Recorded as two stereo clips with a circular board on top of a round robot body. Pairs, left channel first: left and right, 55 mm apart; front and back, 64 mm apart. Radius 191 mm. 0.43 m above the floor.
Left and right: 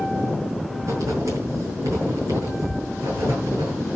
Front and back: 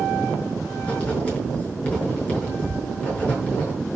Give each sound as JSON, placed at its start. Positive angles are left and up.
{"t": 0.8, "sound": "writing", "azimuth_deg": -70, "distance_m": 6.5}